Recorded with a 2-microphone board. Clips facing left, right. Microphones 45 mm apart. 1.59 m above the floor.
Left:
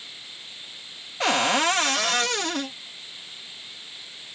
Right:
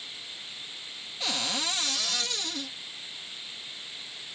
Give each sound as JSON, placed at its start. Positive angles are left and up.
{"t": 1.2, "sound": "a cupboard door", "side_deg": 55}